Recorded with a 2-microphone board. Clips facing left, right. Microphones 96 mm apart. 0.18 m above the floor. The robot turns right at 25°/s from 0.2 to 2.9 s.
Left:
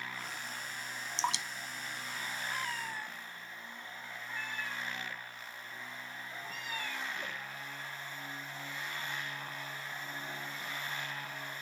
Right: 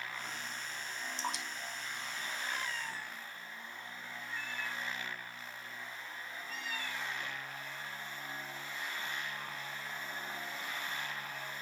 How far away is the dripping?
About 0.7 m.